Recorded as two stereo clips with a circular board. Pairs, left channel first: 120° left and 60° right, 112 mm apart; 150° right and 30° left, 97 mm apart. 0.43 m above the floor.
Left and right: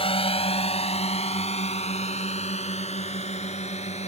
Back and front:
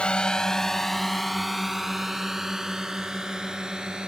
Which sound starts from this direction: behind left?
A drone, at 0.0 s.